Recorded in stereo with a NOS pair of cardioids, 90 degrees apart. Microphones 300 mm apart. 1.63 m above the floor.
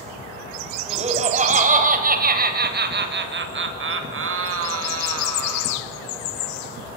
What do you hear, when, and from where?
0.9 s laughter: 20° right, 9 m; by 5.8 s 60° right, 6.5 m